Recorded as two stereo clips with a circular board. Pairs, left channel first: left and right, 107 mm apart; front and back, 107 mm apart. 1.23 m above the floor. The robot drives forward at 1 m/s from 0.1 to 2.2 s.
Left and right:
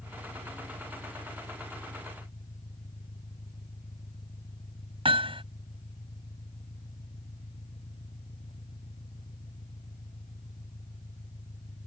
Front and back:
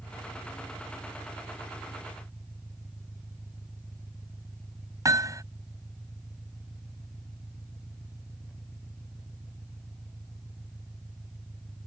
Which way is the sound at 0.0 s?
85° left.